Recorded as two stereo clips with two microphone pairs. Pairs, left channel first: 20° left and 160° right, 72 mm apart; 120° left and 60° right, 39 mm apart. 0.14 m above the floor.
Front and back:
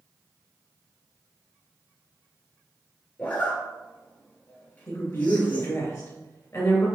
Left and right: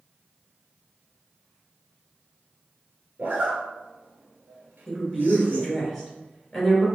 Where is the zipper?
45° right, 1.1 m.